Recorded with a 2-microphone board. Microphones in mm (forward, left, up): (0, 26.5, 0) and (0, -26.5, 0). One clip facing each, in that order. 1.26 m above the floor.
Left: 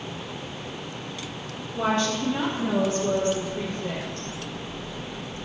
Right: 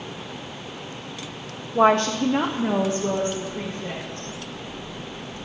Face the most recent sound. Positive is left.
turn(degrees=-20)  # may be behind; listen again after turning